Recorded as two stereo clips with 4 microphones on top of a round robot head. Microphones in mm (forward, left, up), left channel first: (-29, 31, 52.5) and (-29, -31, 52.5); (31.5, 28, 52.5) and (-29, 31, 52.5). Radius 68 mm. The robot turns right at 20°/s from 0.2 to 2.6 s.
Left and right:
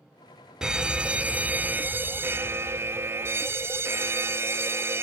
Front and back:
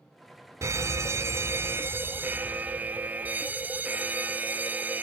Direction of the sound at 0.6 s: 165° right.